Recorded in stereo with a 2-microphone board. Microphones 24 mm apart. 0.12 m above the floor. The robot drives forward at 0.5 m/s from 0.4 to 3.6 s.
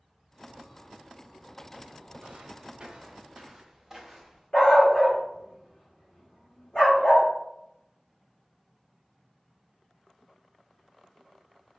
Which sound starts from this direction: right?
Footsteps, at 2.2 s.